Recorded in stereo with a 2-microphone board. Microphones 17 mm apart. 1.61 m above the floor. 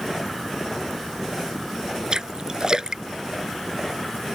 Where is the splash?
40° right (ahead or behind).